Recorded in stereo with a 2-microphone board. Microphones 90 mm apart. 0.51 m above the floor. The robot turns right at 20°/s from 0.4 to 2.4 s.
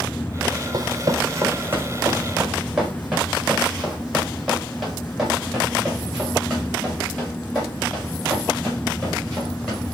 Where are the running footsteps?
45° right (ahead or behind), 0.9 m; by 9.9 s centre (ahead or behind), 7.5 m.